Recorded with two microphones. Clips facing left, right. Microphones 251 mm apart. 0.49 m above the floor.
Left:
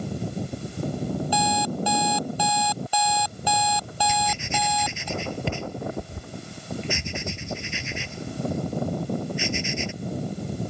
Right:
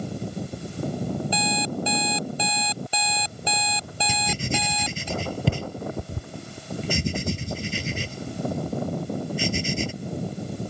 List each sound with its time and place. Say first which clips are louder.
1.3 s an alarm clock: left 1 dB; 25° right (ahead or behind)
4.1 s writing: right 6 dB; 40° right (ahead or behind)